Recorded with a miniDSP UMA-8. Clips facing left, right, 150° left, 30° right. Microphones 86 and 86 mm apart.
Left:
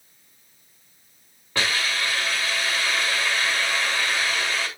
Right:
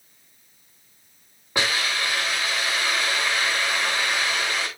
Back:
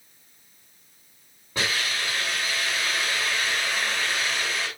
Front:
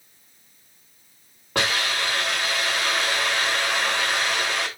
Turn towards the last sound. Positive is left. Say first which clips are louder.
# even, front 4 dB
turn(degrees=-20)